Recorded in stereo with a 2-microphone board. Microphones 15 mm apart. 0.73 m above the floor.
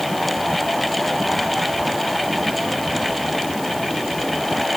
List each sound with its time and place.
Only background noise.